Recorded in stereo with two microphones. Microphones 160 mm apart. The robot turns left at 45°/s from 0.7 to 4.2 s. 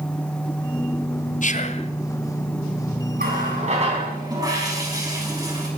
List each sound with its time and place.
1.4 s whispering: 50° left (ahead or behind), 1.2 m; by 1.9 s 35° left (ahead or behind), 1.2 m
3.2 s a running tap: 110° right, 4.5 m; by 5.7 s 155° right, 4.5 m